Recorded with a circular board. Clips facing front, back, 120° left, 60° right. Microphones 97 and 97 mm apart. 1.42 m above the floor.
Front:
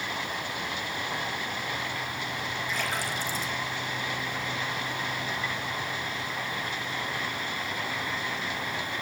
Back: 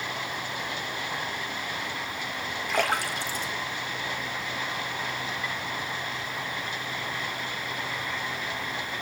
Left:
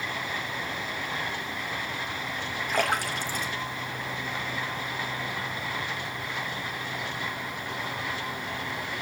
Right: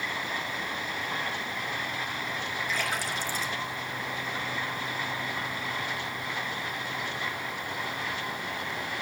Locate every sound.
2.7 s a splash: 155° left, 2.5 m